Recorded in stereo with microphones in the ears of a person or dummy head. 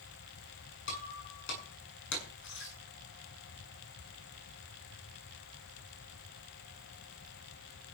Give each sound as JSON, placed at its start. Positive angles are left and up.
{"t": 0.9, "sound": "breaking glass", "side_deg": 60, "distance_m": 7.5}